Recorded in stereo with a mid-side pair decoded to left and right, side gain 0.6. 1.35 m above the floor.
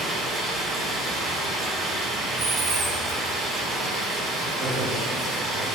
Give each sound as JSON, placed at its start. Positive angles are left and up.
{"t": 0.0, "sound": "running water", "azimuth_deg": -10, "distance_m": 2.0}
{"t": 2.4, "sound": "a dropped coin", "azimuth_deg": -35, "distance_m": 1.9}
{"t": 4.6, "sound": "a man speaking", "azimuth_deg": -20, "distance_m": 1.9}